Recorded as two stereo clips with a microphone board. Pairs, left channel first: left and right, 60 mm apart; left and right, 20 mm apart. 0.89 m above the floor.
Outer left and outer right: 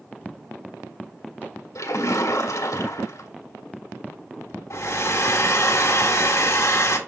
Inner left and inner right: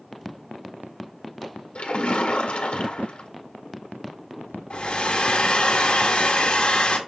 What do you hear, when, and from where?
1.8 s a splash: 75° left (ahead or behind), 1.7 m
4.7 s a hair dryer: 60° left (ahead or behind), 1.7 m